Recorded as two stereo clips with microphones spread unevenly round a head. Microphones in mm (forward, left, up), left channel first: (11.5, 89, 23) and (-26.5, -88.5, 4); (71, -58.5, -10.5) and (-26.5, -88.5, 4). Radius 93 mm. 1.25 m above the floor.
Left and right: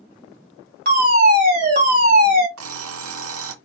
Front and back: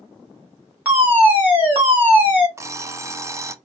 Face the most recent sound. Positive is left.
turn(degrees=-105)